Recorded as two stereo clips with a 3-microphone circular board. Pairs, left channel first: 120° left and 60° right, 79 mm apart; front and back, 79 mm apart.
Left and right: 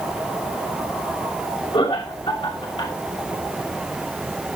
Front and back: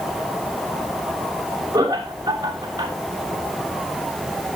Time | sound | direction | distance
1.7 | laughter | 125° left | 6 m